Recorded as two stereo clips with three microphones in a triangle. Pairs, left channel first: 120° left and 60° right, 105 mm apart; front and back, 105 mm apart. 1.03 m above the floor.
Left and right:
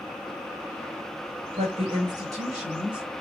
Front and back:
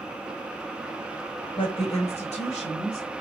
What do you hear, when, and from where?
1.6 s a woman speaking: 40° right, 1.0 m; by 3.0 s 15° left, 2.5 m